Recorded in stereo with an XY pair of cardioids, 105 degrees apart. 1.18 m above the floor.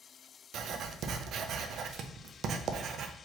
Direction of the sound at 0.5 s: 65° right.